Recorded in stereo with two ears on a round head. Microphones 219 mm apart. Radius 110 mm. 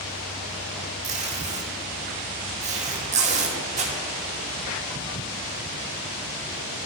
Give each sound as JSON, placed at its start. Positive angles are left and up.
{"t": 1.0, "sound": "tape being pulled", "side_deg": -30, "distance_m": 1.0}